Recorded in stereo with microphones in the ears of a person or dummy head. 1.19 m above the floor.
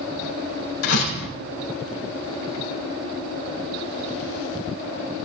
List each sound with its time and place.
0.8 s a door slam: 80° left, 4 m